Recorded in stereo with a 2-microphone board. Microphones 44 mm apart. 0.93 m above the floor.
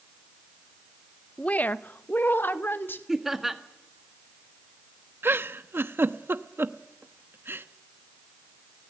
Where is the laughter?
5° right (ahead or behind), 1.6 m.